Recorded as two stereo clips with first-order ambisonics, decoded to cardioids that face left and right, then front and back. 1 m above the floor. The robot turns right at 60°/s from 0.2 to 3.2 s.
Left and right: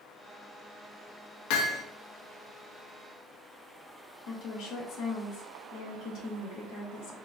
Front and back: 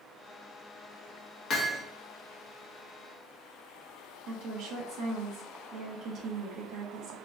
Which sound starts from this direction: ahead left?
Hammering, at 1.5 s.